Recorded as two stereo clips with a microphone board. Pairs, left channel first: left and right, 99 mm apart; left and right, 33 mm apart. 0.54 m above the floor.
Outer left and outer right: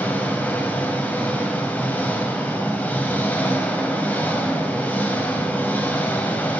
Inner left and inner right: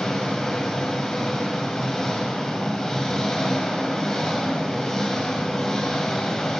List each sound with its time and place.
0.0 s an engine running: 15° left (ahead or behind), 2.0 m